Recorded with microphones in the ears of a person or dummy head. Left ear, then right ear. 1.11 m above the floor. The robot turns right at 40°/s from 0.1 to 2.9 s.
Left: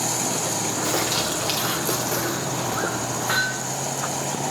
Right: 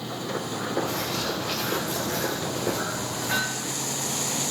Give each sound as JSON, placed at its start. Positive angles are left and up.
{"t": 0.8, "sound": "a bird", "azimuth_deg": 70, "distance_m": 2.5}
{"t": 3.3, "sound": "hammering", "side_deg": 60, "distance_m": 7.0}